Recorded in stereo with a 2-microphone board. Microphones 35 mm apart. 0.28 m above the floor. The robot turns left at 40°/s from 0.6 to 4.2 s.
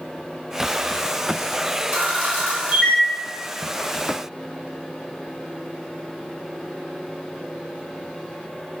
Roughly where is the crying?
No crying in this recording.